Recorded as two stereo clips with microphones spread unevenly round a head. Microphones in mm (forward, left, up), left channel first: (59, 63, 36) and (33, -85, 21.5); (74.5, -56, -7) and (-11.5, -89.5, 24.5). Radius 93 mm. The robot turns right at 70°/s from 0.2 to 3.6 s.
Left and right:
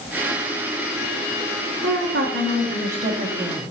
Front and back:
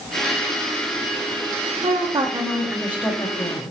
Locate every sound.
1.8 s a woman speaking: 150° right, 1.1 m; by 3.7 s 25° right, 1.1 m